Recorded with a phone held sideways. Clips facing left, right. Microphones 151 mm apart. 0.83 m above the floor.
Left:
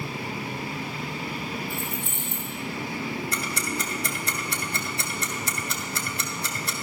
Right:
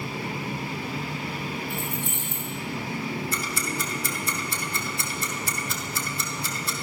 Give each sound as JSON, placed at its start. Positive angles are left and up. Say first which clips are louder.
{"t": 1.7, "sound": "keys jangling", "louder": "right 1 dB", "side_deg": -70, "distance_m": 6.5}
{"t": 3.3, "sound": "ticking", "louder": "even", "side_deg": 70, "distance_m": 2.0}